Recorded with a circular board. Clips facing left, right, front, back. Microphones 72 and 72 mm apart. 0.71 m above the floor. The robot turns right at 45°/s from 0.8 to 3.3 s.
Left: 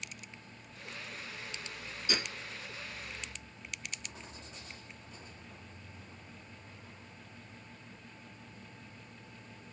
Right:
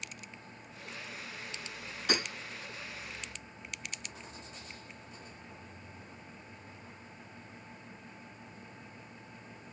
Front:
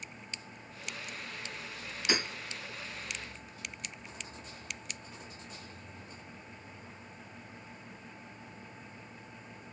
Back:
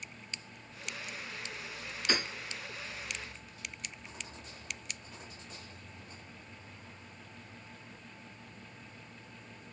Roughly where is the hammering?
Right.